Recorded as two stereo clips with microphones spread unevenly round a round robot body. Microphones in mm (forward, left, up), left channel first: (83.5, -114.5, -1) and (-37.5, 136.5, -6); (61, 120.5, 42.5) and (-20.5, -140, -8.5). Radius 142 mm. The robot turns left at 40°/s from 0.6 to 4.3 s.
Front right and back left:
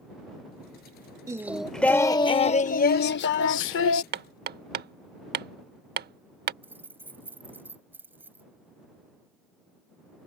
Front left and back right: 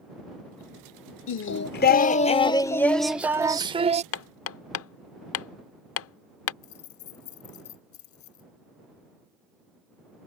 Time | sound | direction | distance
1.3 | singing | 45° left | ?
4.1 | hammering | 95° left | ?
6.6 | keys jangling | 35° left | ?